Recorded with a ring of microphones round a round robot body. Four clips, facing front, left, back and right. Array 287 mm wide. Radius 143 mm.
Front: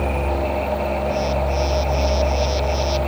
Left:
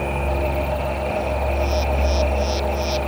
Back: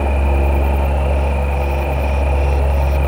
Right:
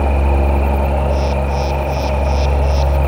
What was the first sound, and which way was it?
Only background noise.